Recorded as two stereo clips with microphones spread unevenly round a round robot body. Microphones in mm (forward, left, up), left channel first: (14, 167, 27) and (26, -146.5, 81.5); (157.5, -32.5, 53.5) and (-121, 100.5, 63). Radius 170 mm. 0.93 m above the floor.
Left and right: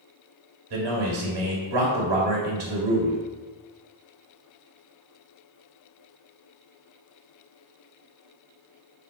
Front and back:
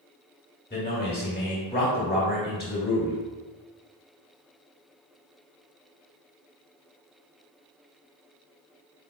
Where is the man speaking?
85° right, 1.7 m.